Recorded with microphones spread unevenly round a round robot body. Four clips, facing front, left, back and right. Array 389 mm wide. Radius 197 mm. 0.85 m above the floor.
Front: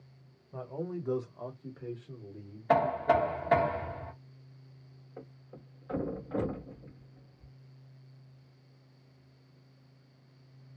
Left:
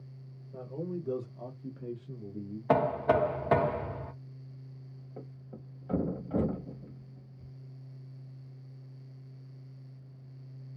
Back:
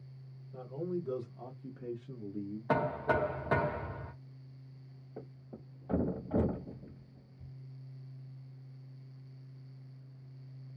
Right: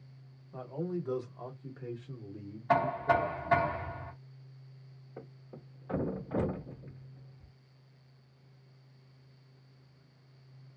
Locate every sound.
0.5 s a man speaking: 25° left, 1.3 m; by 3.7 s 160° left, 1.6 m
2.7 s knocking: 85° left, 0.5 m
5.2 s a thud: 145° left, 1.0 m